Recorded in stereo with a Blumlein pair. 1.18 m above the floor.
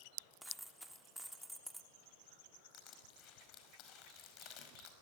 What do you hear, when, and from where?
0.4 s a dropped coin: 5° right, 1.5 m
2.7 s crushing: 35° left, 5 m